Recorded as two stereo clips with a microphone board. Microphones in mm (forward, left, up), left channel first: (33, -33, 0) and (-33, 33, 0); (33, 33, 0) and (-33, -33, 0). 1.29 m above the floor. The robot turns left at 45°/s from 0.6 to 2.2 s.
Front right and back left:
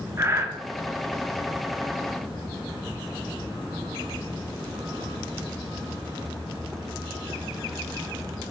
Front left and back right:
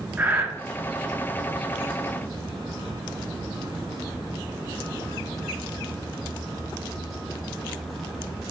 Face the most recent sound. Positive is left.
turn(degrees=95)